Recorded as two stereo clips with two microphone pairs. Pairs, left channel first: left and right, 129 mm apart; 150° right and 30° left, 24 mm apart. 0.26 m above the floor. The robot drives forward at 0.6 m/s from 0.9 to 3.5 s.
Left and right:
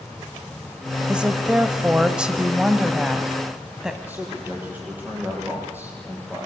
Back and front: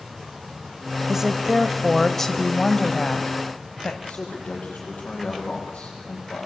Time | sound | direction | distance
1.1 | a woman speaking | 15° right | 1.0 m
4.0 | a man speaking | 165° right | 8.5 m